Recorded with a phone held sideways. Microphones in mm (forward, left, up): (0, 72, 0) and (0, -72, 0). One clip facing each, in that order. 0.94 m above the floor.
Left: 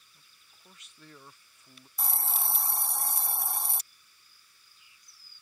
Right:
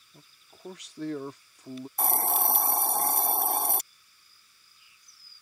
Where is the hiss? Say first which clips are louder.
Right 9 dB; 60° right (ahead or behind).